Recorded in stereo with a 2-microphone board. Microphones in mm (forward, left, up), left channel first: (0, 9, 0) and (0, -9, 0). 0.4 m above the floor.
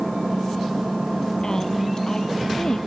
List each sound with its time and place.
0.0 s an engine running: 10° right (ahead or behind)
1.4 s a woman speaking: 40° left (ahead or behind)